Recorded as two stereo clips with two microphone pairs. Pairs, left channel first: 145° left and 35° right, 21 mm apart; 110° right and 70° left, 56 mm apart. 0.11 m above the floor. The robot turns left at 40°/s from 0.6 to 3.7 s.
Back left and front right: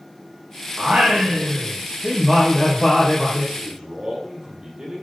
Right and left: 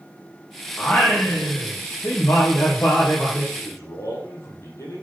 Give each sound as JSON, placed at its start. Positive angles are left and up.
{"t": 0.8, "sound": "singing", "azimuth_deg": -45, "distance_m": 5.0}
{"t": 3.5, "sound": "a man speaking", "azimuth_deg": -85, "distance_m": 4.5}